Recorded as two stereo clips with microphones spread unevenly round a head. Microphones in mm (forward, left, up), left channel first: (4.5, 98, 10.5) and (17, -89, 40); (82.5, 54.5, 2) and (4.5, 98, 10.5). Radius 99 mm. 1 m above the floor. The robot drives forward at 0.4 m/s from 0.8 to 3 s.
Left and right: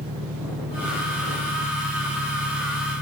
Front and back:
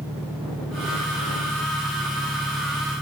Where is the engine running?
135° right.